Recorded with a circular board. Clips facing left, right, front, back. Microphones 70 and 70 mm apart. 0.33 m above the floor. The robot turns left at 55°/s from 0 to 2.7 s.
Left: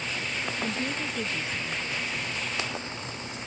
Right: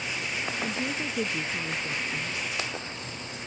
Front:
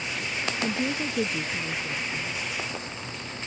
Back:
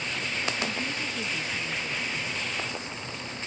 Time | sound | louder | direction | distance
0.6 | a woman speaking | left 1 dB, front 4 dB | 10° left | ?